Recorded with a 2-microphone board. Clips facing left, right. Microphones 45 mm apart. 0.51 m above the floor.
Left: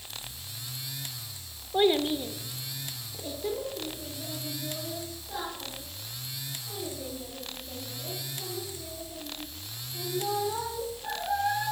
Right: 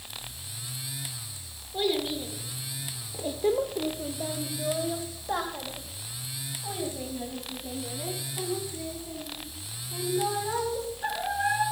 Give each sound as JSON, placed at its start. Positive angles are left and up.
{"t": 1.7, "sound": "a child speaking", "side_deg": 35, "distance_m": 0.8}